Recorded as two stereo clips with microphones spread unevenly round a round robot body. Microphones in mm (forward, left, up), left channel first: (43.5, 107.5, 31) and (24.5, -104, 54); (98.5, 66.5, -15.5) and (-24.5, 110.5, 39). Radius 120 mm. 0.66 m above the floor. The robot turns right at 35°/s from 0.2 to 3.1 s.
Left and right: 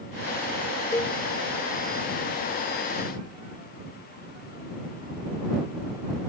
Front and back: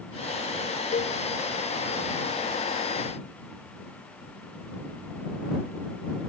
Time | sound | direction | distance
0.9 | a cowbell | 5° left | ?